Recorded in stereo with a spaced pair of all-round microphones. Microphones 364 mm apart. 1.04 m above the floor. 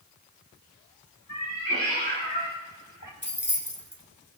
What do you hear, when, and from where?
1.3 s a cat meowing: 50° left (ahead or behind), 3 m; by 3.1 s 55° left (ahead or behind), 1.7 m
3.2 s keys jangling: 30° left (ahead or behind), 1.3 m